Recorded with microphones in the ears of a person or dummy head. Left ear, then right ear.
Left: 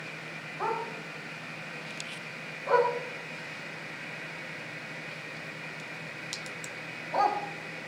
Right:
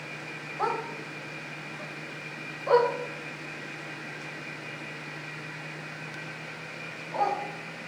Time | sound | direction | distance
0.6 | a dog barking | 45° right (ahead or behind) | 2.5 m